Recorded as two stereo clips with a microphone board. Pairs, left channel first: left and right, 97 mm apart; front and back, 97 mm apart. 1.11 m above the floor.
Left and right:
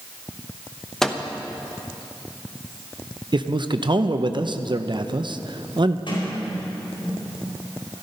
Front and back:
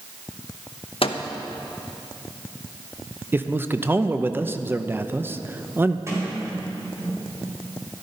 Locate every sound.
1.0 s a microwave: 5° left, 0.8 m
3.3 s a man speaking: 115° right, 0.6 m
6.1 s a sliding door: 120° left, 4 m